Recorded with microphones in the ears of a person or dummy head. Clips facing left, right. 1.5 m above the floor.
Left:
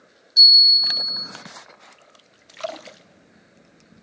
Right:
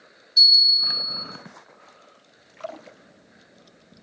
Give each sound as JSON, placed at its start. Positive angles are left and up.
{"t": 0.4, "sound": "a bell", "side_deg": 15, "distance_m": 0.8}